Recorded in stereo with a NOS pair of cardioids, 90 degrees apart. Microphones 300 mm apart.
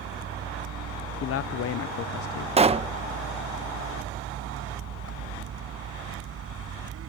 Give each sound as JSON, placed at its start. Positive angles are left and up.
{"t": 0.0, "sound": "a vehicle", "azimuth_deg": -60}
{"t": 1.2, "sound": "a man speaking", "azimuth_deg": 50}
{"t": 2.6, "sound": "a pop", "azimuth_deg": -20}